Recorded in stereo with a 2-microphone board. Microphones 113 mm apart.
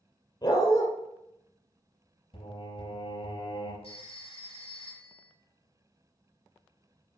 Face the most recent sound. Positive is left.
turn(degrees=55)  # may be behind; listen again after turning